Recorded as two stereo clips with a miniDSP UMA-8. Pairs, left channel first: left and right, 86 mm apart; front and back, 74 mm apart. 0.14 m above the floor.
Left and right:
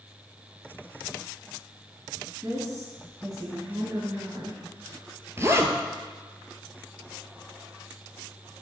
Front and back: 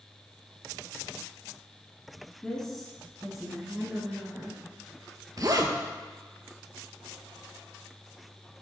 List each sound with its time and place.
2.4 s a woman speaking: 75° right, 2 m; by 4.7 s 115° right, 2.5 m
5.4 s a zipper: 150° right, 0.7 m